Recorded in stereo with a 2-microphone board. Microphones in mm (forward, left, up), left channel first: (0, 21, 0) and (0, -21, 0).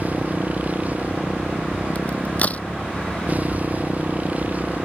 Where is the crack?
35° left (ahead or behind).